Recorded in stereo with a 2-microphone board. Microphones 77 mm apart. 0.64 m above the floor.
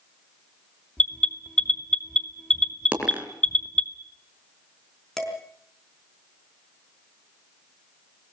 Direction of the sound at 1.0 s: 15° left (ahead or behind).